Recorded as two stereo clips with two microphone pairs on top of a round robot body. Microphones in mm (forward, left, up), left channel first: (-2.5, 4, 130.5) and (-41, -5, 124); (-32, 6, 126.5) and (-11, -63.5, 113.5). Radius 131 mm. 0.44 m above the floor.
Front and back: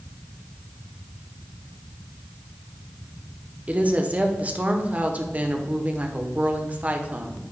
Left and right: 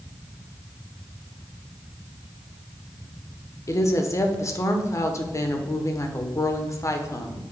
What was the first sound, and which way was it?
A woman speaking, 155° left.